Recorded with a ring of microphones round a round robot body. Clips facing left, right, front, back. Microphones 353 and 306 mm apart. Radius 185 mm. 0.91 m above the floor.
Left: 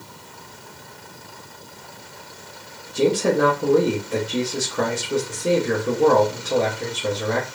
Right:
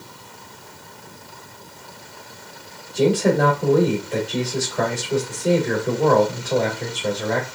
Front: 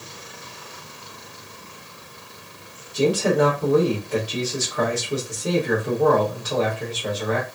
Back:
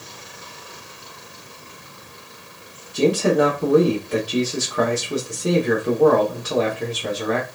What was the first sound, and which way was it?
A man speaking, 170° left.